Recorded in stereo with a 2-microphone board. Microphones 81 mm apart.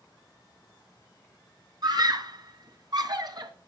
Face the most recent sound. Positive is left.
turn(degrees=-60)  # may be behind; listen again after turning